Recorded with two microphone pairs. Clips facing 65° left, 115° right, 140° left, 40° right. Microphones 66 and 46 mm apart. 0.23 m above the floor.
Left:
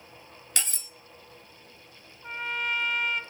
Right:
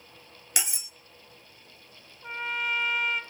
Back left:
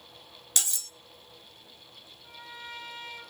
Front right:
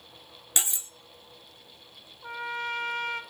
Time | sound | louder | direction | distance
0.6 | cutlery clinking | right 1 dB, front right 2 dB | 65° right | 0.6 m
2.2 | a trumpet | even, front right 12 dB | 30° right | 1.6 m